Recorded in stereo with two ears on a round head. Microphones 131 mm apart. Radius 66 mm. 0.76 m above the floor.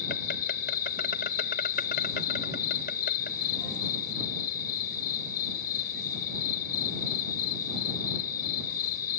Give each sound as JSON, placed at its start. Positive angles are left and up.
{"t": 0.0, "sound": "an insect", "side_deg": 65}